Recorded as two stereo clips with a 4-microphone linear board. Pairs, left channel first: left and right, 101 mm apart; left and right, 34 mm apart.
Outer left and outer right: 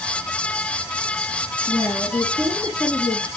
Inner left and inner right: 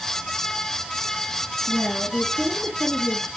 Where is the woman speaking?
35° left (ahead or behind), 2.0 m; by 3.3 s 20° left (ahead or behind), 3.5 m.